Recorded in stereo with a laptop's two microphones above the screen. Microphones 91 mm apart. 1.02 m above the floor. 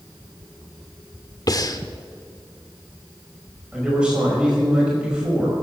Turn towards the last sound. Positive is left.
turn(degrees=-10)  # may be behind; listen again after turning